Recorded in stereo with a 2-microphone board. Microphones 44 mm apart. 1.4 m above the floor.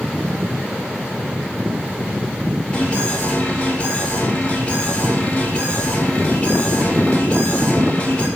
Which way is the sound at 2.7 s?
20° left (ahead or behind).